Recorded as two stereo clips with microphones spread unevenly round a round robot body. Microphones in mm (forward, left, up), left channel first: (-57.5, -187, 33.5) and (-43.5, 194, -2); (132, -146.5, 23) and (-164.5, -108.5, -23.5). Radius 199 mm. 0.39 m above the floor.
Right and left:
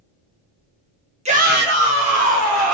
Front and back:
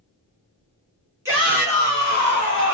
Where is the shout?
125° left, 1.0 m; by 2.8 s 50° left, 1.7 m.